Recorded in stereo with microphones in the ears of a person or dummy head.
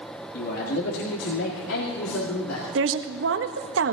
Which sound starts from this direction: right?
A woman speaking, at 2.8 s.